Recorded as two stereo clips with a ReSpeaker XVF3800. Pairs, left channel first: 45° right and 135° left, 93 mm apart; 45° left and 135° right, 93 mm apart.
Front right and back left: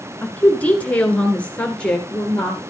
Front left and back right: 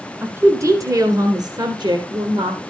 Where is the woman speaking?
100° right, 1.2 m; by 2.6 s 125° right, 2 m.